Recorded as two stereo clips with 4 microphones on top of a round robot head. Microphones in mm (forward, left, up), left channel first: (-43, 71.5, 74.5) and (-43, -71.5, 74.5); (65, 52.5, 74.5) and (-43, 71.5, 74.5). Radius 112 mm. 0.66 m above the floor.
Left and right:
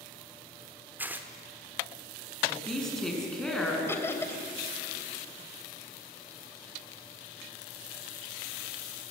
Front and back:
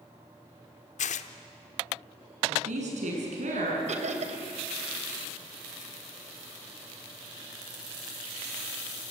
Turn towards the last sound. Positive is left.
turn(degrees=165)